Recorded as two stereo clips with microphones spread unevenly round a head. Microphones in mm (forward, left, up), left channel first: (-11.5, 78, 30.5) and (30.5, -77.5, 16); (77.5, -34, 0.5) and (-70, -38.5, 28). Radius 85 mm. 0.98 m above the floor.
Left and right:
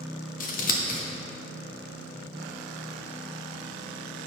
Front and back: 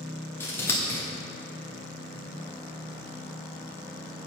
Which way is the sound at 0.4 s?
70° left.